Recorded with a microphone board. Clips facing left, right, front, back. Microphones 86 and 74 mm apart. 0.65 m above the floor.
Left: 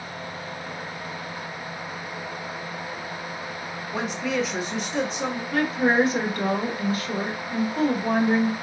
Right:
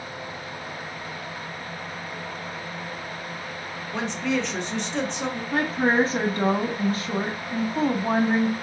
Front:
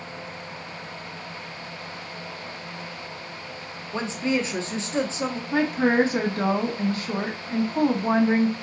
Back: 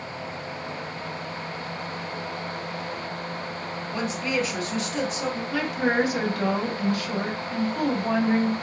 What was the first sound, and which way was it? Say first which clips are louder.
A woman speaking: even, front 2 dB; 15° left.